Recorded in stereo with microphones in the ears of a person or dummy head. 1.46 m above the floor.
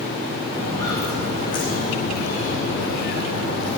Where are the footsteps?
15° left (ahead or behind), 5 m; by 3.8 s 65° left (ahead or behind), 3 m.